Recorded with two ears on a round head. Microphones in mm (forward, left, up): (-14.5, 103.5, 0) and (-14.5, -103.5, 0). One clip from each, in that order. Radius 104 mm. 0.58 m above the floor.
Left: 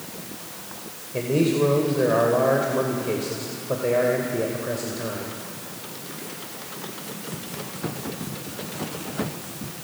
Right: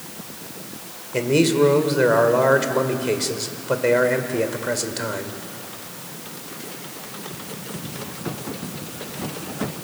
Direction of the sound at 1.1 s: 65° right (ahead or behind).